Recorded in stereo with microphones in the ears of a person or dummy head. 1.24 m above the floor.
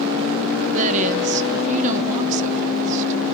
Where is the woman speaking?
35° right (ahead or behind), 0.7 m.